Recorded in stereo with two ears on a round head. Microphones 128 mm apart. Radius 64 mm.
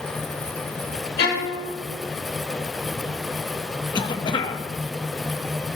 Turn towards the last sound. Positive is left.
turn(degrees=30)  # may be behind; listen again after turning